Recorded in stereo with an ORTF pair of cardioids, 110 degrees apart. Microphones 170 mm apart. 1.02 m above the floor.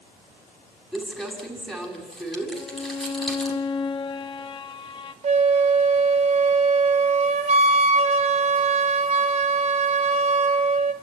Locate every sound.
0.9 s crumpling: straight ahead, 6.5 m
2.5 s a violin: 25° left, 1.4 m
5.2 s a flute: 40° right, 1.2 m